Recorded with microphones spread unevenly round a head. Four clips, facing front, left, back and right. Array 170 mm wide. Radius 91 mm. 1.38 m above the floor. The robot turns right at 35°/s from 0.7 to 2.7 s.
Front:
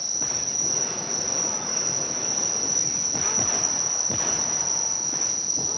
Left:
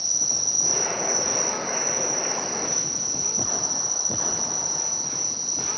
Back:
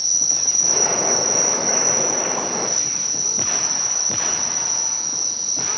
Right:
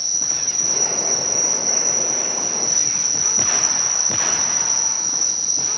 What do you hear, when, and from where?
0.0 s an insect: 130° left, 1.8 m; by 5.8 s 160° right, 1.8 m